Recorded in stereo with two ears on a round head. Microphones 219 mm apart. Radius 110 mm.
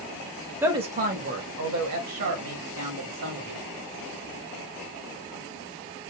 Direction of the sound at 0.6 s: 10° right (ahead or behind).